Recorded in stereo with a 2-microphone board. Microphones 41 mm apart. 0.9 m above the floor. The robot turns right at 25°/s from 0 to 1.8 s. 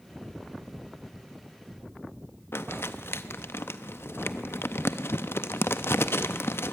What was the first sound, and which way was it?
Crumpling, 75° left (ahead or behind).